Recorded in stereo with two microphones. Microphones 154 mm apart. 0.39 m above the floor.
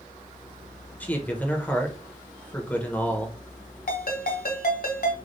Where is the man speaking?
10° left (ahead or behind), 0.9 m.